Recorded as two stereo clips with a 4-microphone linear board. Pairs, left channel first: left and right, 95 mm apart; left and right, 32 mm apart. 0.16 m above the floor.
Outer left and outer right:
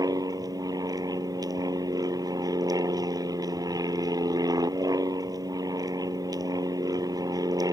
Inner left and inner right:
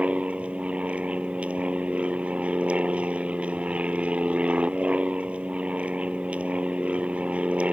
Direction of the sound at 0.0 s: 40° right (ahead or behind).